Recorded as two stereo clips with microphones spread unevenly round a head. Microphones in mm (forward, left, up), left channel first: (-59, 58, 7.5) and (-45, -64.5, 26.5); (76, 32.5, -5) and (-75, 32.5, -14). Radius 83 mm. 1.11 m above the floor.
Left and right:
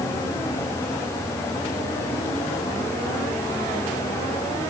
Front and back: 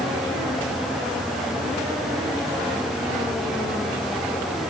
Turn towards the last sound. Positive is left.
No sound to turn to.